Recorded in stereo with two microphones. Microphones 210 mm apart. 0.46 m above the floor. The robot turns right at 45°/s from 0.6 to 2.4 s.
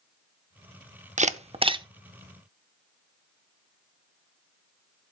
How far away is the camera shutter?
About 0.6 m.